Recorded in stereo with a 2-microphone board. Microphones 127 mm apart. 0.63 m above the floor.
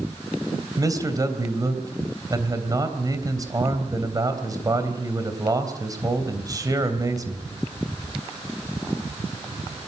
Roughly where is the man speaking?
Right.